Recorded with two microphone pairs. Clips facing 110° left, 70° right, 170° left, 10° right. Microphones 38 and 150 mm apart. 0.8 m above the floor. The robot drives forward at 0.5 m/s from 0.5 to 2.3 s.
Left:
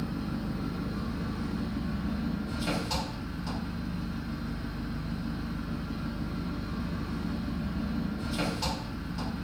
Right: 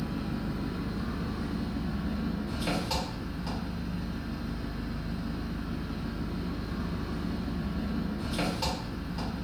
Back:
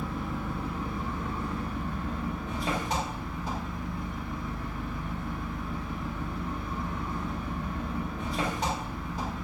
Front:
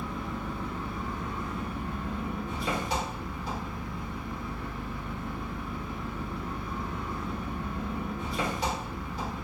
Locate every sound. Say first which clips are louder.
0.0 s an engine running: even, back 1 dB; 105° right, 0.8 m; by 9.4 s 150° right, 1.3 m